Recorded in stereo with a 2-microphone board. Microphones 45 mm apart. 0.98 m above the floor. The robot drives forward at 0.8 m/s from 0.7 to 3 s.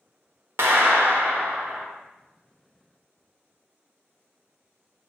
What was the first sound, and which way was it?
A clap, 70° right (ahead or behind).